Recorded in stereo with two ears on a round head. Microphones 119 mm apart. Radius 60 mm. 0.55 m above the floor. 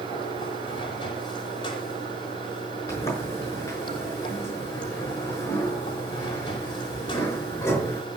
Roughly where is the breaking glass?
No breaking glass in this recording.